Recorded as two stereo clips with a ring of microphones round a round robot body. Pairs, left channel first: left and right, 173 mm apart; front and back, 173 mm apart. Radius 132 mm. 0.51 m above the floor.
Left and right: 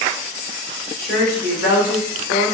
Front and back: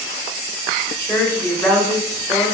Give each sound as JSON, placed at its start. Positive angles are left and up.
{"t": 1.0, "sound": "a woman speaking", "azimuth_deg": 75, "distance_m": 3.0}